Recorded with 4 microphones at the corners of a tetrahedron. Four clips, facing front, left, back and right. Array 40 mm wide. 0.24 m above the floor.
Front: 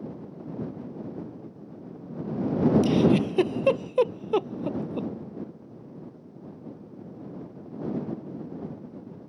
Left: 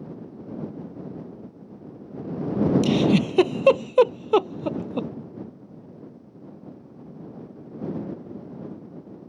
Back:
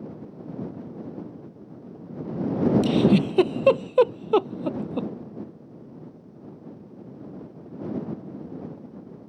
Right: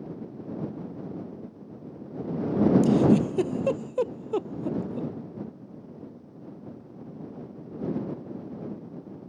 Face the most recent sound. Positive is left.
turn(degrees=110)